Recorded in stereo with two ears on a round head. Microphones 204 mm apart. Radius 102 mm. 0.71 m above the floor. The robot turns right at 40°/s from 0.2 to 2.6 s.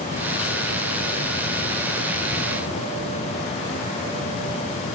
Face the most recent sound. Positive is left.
No sound to turn to.